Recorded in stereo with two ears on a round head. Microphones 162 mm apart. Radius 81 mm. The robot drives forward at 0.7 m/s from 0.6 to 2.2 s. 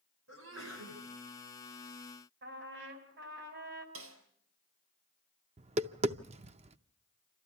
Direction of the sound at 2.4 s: 65° right (ahead or behind).